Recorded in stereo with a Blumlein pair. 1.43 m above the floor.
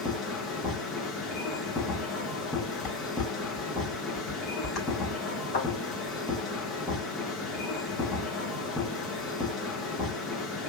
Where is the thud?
60° left, 3 m.